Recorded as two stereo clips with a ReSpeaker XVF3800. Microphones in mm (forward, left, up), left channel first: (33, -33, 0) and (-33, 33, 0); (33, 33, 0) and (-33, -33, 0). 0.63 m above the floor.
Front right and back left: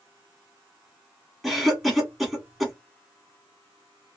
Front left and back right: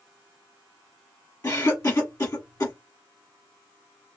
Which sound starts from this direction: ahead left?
A cough, at 1.4 s.